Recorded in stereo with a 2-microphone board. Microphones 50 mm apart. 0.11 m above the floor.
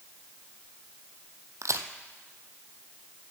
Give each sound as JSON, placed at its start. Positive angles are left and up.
{"t": 1.6, "sound": "a crack", "side_deg": -70, "distance_m": 0.9}